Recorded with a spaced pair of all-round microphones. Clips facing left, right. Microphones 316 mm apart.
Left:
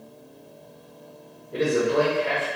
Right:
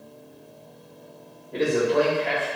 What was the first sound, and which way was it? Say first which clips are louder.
A man speaking: even; 10° left (ahead or behind).